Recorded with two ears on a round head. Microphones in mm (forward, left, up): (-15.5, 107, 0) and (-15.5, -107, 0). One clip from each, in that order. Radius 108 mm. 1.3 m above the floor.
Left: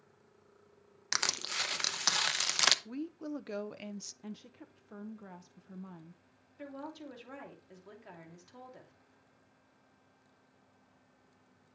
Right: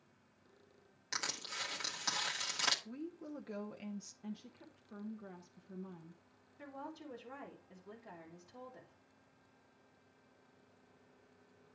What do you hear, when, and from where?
1.1 s crushing: 45° left (ahead or behind), 0.8 m
2.9 s a woman speaking: 30° left (ahead or behind), 0.5 m
4.2 s a woman speaking: 30° left (ahead or behind), 0.7 m
6.6 s a woman speaking: 65° left (ahead or behind), 3 m